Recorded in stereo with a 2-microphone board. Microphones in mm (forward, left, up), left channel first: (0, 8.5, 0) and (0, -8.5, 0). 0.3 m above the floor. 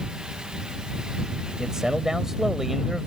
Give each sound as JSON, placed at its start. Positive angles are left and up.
{"t": 1.6, "sound": "a man speaking", "side_deg": -35}